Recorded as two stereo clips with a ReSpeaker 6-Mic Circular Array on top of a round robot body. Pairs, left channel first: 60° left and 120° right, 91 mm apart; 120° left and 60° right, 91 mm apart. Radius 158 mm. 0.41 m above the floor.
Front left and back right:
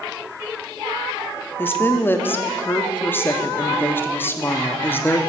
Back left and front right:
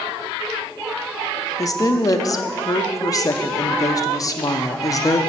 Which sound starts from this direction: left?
A woman speaking, at 1.6 s.